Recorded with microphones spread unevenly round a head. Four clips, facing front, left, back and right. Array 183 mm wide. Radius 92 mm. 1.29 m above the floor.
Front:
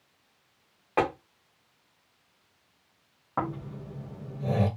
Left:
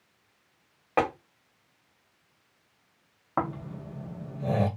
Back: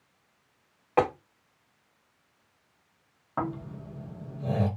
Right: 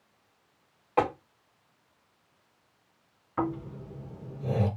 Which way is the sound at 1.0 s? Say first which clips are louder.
Even, back 2 dB; 95° left.